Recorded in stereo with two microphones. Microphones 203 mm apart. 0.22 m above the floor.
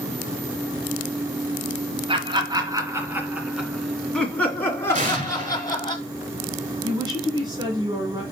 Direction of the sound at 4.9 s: 40° right (ahead or behind).